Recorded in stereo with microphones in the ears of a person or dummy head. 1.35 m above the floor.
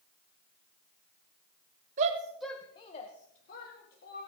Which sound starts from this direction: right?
A shout, at 2.0 s.